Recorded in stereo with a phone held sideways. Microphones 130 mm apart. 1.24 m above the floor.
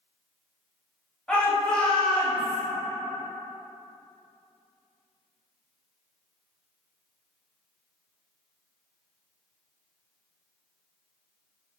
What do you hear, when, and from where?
1.3 s a shout: 5° left (ahead or behind), 0.8 m